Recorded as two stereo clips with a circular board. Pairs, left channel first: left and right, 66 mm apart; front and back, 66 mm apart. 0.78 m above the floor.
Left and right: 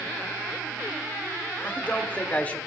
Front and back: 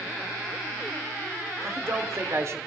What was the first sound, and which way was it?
A man speaking, 150° left.